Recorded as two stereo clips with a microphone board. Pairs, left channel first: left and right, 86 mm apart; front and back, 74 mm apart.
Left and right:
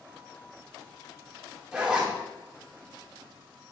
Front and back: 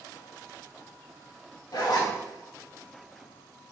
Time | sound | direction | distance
1.7 | a zipper | 15° right | 1.4 m